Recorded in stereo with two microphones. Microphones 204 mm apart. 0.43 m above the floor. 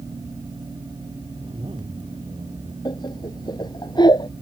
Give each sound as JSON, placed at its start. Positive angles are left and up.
{"t": 1.4, "sound": "a zipper", "side_deg": -25}
{"t": 2.9, "sound": "laughter", "side_deg": 20}